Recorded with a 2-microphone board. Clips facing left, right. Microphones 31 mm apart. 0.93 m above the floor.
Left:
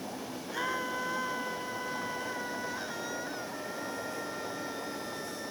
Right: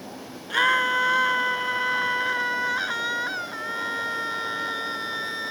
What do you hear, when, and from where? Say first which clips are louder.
0.5 s a scream: right 13 dB; 75° right (ahead or behind)